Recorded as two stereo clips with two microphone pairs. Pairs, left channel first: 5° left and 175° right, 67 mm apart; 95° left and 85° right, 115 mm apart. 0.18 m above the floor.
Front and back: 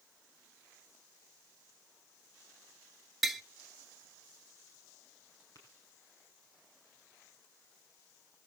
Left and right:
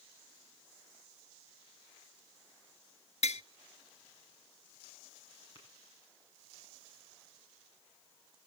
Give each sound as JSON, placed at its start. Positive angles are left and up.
{"t": 3.2, "sound": "tapping", "azimuth_deg": 95, "distance_m": 0.6}
{"t": 5.5, "sound": "tapping", "azimuth_deg": -40, "distance_m": 7.5}